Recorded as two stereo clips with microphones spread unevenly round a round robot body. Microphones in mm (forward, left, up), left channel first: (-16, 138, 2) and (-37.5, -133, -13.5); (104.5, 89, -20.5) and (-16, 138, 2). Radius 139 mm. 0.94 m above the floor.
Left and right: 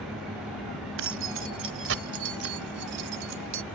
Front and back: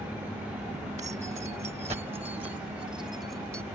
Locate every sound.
1.0 s keys jangling: 135° right; by 3.6 s 120° right